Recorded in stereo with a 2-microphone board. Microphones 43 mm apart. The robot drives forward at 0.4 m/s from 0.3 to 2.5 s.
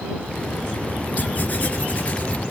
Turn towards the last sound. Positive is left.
turn(degrees=30)  # may be behind; listen again after turning